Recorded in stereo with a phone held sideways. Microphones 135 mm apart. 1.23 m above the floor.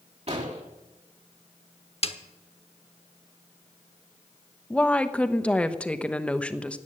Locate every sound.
0.3 s an explosion: 50° right (ahead or behind), 3 m
2.0 s a snare drum: 45° left (ahead or behind), 1.2 m
4.7 s a woman speaking: 10° left (ahead or behind), 1.0 m